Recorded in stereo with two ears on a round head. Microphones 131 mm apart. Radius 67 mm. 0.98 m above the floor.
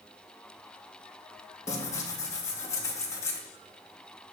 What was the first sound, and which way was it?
Tearing paper, 20° left (ahead or behind).